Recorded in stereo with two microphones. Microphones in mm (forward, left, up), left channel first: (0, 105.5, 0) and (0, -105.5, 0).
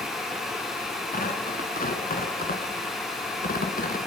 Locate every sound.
1.1 s tearing paper: 40° left (ahead or behind), 2.0 m